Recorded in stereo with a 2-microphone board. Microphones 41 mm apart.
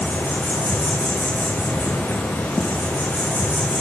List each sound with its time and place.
0.0 s an insect: 60° left (ahead or behind), 6.5 m